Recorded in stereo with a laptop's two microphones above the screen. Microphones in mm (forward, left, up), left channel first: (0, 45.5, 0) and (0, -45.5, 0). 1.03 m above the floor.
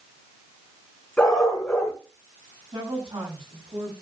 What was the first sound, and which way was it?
A dog barking, 10° left (ahead or behind).